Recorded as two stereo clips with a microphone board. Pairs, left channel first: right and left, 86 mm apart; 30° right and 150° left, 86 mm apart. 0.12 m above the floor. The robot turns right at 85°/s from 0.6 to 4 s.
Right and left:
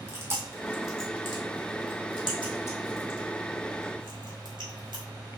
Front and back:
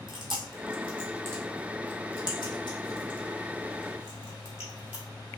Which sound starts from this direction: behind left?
Chewing, at 0.1 s.